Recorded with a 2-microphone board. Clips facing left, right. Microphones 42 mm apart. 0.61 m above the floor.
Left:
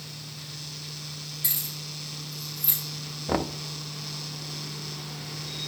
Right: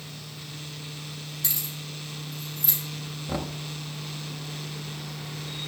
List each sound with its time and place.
1.4 s keys jangling: 15° left (ahead or behind), 4.5 m; by 2.8 s 10° left (ahead or behind), 5.5 m
3.3 s knocking: 35° left (ahead or behind), 0.6 m